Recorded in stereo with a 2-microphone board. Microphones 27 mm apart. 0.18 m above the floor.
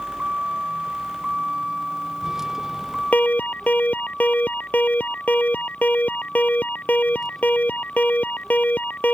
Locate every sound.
0.0 s a vehicle: 35° right (ahead or behind); by 9.1 s 15° left (ahead or behind)
3.1 s an alarm: 75° left (ahead or behind)